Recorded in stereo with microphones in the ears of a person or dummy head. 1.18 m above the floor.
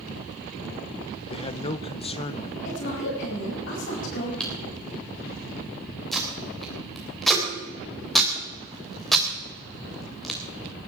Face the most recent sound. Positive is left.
turn(degrees=5)  # may be behind; listen again after turning